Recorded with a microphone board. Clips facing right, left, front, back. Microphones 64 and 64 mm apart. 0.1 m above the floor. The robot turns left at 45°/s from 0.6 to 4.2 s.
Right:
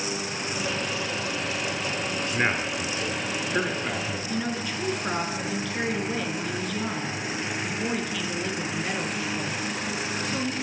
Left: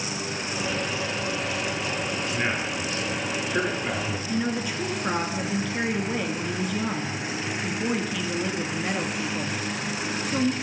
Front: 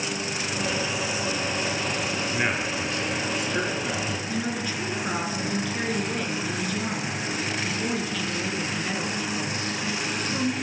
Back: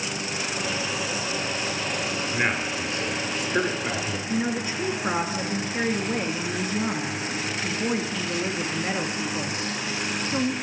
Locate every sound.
2.3 s a man speaking: 105° right, 1.7 m; by 4.2 s 170° left, 1.7 m
4.3 s a woman speaking: 160° left, 1.2 m